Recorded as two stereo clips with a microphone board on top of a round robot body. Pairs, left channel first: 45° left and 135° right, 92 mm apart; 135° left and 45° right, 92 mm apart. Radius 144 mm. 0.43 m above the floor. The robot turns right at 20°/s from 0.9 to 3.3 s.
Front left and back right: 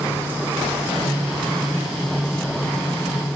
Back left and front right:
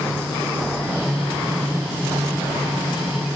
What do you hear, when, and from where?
Only background noise.